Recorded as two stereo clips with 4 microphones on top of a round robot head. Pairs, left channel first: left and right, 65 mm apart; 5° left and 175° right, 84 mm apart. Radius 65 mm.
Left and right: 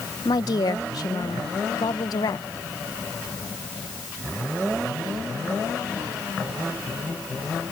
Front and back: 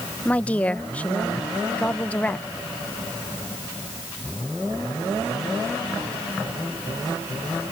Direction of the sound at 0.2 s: 75° left.